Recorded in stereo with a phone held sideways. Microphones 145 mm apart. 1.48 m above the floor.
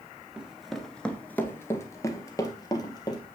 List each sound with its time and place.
0.4 s running footsteps: 5° right (ahead or behind), 1.5 m; by 3.2 s 25° left (ahead or behind), 2.5 m